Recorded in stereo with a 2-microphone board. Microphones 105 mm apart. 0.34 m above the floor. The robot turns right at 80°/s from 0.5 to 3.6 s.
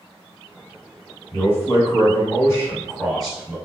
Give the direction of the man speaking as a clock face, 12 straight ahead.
11 o'clock.